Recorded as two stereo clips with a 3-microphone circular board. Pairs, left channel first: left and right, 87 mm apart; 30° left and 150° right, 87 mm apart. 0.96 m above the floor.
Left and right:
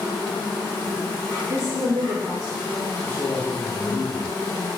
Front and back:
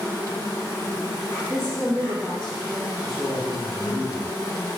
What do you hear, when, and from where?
0.0 s an insect: 60° left, 1.7 m
1.5 s a woman speaking: 60° right, 0.5 m
3.0 s a man speaking: 125° left, 0.9 m